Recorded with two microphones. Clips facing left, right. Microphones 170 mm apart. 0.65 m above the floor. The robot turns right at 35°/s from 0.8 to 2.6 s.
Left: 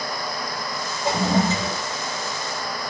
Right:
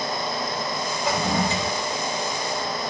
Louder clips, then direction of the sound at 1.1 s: Left 4 dB; 30° left (ahead or behind).